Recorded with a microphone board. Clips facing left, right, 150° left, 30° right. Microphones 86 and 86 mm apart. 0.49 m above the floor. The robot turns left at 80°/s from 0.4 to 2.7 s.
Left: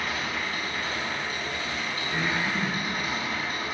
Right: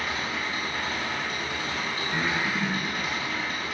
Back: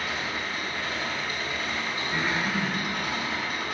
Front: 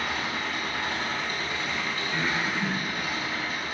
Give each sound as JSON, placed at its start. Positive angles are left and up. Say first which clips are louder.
{"t": 0.0, "sound": "an engine running", "louder": "even, front 1 dB", "azimuth_deg": -5, "distance_m": 3.5}
{"t": 2.1, "sound": "breathing", "louder": "even, back 1 dB", "azimuth_deg": -145, "distance_m": 4.5}